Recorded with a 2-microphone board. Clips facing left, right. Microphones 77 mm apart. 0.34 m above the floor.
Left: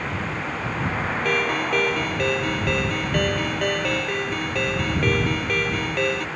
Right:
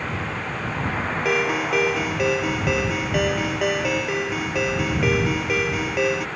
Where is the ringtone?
10° right (ahead or behind).